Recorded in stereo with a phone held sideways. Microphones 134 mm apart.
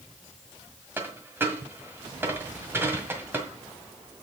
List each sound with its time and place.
1.0 s a dropped coin: 15° right (ahead or behind), 1.7 m